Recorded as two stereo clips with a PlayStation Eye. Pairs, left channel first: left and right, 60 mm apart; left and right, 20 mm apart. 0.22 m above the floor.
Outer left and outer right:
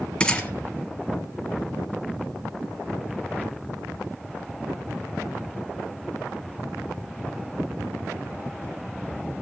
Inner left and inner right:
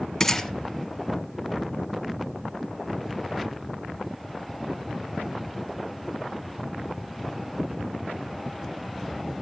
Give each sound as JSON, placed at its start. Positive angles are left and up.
{"t": 0.2, "sound": "a gunshot", "side_deg": 20, "distance_m": 2.0}